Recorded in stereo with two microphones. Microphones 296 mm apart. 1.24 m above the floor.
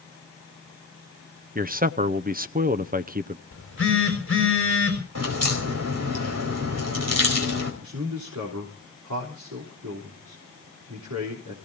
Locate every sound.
1.6 s a man speaking: 30° right (ahead or behind), 0.6 m
3.5 s a phone buzzing: 45° left (ahead or behind), 6 m
5.2 s a crack: 60° right (ahead or behind), 4.5 m
7.8 s a man speaking: 75° right (ahead or behind), 3.5 m